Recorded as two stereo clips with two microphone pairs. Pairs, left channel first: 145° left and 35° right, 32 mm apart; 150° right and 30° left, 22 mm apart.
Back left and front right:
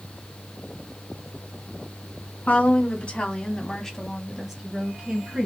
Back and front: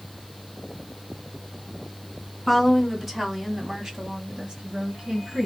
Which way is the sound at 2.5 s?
120° left.